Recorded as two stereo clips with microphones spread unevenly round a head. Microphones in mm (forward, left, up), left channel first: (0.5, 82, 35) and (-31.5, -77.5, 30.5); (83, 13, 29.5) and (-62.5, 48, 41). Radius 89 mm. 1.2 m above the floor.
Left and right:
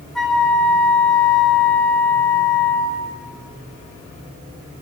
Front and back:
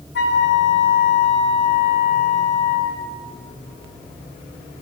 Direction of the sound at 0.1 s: 10° right.